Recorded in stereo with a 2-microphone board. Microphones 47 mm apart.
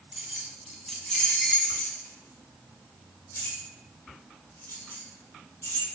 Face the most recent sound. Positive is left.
turn(degrees=75)  # may be behind; listen again after turning